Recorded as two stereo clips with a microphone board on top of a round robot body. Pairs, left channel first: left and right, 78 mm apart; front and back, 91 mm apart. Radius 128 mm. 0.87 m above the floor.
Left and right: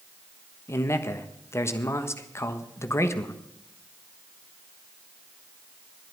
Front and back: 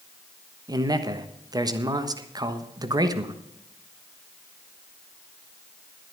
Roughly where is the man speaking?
Behind left.